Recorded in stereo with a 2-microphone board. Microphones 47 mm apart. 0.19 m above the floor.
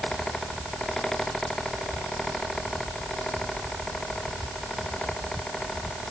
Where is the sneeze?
I don't hear a sneeze.